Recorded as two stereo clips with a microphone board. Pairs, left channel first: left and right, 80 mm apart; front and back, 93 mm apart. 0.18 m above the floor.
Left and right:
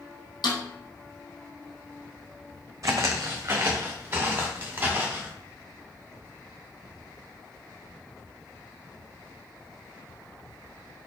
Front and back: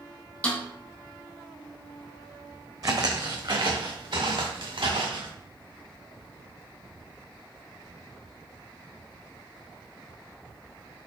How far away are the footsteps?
About 0.7 m.